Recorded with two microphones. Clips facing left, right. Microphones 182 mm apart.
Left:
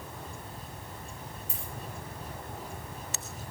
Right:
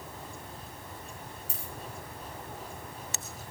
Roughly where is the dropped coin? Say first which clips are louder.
Left 1 dB; right.